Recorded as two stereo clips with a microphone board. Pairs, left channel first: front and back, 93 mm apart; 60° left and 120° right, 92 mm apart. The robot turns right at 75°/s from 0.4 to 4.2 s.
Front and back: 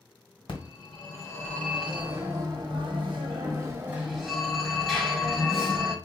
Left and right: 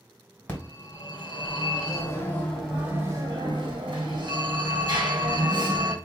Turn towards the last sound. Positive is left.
turn(degrees=-90)